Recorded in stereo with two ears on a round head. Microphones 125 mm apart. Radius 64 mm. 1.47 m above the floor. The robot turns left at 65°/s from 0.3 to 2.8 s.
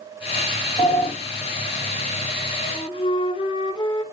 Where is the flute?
25° left (ahead or behind), 0.8 m; by 4.0 s 35° left (ahead or behind), 0.8 m.